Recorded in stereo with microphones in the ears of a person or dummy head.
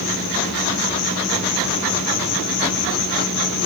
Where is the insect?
60° left (ahead or behind), 1.1 m.